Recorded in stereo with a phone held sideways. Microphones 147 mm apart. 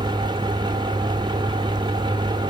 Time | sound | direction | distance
0.0 | a fan | 30° right (ahead or behind) | 1.0 m